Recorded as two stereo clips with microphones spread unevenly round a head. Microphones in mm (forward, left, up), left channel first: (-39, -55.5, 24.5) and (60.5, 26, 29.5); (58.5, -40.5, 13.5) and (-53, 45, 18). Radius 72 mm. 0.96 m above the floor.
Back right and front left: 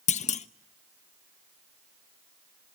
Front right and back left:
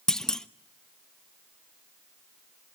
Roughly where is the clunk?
Behind right.